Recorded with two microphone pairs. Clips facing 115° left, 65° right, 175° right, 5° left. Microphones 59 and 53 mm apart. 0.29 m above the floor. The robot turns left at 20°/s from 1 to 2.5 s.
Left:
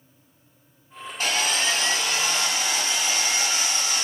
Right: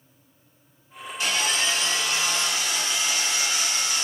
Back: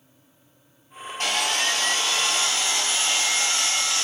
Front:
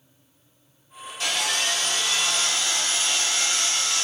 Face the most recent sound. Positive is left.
turn(degrees=125)